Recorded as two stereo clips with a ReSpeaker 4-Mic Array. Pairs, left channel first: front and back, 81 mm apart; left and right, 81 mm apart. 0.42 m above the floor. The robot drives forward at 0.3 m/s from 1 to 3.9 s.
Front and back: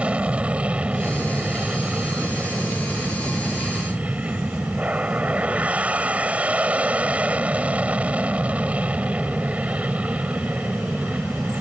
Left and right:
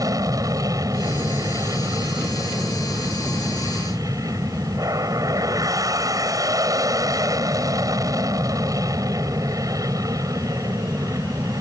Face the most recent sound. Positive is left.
turn(degrees=-110)